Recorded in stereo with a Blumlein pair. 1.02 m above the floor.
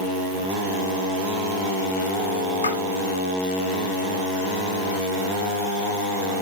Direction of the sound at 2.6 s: 70° left.